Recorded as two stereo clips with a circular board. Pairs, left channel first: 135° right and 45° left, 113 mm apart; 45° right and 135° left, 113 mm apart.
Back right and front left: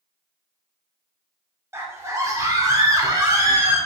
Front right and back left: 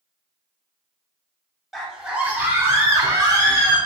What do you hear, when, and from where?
1.7 s a scream: 45° left, 1.1 m; by 3.8 s 95° left, 1.8 m